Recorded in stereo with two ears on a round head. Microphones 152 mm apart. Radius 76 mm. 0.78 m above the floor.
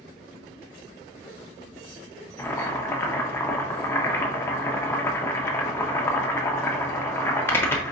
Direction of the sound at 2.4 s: 15° left (ahead or behind).